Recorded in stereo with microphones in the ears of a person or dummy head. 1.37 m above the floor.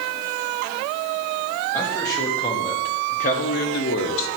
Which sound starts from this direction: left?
A man speaking, at 1.7 s.